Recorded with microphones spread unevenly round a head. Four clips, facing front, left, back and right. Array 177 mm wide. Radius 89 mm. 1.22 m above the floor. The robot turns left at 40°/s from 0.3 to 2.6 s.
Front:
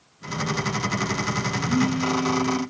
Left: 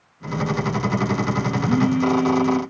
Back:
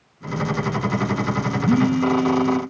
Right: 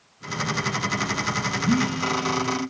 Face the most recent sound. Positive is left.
turn(degrees=155)